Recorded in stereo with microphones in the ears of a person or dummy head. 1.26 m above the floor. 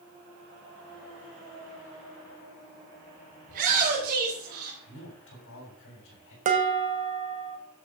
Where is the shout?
45° right (ahead or behind), 4 m; by 4.8 s 55° right (ahead or behind), 4.5 m.